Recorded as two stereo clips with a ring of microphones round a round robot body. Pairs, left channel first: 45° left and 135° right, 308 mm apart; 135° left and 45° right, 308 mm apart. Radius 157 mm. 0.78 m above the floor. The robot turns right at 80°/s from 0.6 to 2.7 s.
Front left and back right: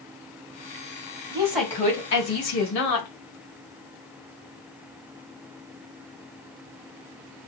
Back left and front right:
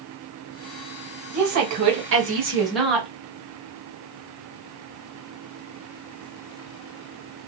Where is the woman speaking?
65° right, 1.5 m; by 3.1 s 45° left, 1.5 m.